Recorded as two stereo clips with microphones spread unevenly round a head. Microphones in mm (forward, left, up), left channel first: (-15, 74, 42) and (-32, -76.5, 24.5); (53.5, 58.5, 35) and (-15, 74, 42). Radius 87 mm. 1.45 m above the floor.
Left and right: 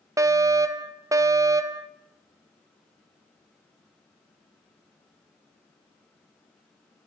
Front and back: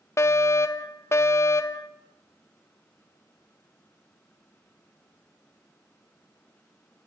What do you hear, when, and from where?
0.2 s a fire alarm: 40° right, 1.1 m